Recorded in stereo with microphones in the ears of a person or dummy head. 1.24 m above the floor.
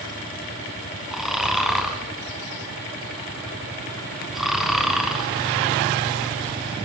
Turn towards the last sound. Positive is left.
turn(degrees=0)  # may be behind; listen again after turning